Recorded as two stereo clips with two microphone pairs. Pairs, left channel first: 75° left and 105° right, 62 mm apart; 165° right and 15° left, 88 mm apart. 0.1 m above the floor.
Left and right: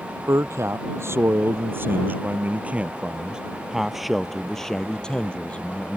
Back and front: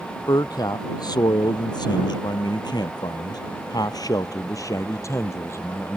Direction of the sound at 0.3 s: 130° right.